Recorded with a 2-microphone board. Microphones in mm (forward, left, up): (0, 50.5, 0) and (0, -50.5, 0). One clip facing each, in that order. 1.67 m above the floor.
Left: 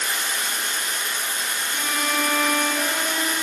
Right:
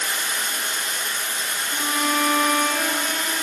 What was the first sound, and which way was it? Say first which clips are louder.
Running water: even; 40° right (ahead or behind).